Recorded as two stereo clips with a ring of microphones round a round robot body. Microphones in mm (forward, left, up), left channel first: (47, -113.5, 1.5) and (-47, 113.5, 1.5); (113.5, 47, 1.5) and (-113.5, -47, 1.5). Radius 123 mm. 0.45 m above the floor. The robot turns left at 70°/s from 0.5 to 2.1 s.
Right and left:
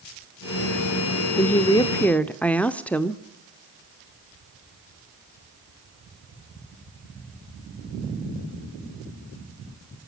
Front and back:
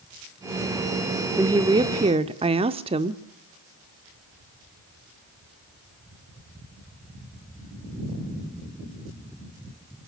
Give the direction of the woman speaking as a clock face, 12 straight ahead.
3 o'clock.